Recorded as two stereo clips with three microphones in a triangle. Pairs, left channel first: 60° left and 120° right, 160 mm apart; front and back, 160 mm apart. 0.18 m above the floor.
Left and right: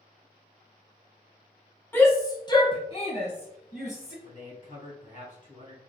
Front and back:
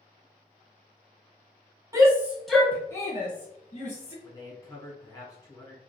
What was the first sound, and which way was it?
A shout, 130° left.